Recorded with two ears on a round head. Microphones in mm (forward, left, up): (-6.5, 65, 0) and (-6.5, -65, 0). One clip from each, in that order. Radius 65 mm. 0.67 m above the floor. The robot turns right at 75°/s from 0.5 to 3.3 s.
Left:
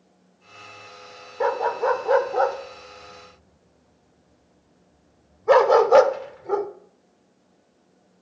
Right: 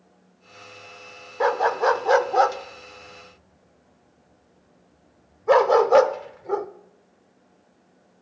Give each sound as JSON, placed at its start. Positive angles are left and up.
{"t": 1.4, "sound": "a dog barking", "side_deg": -35, "distance_m": 0.5}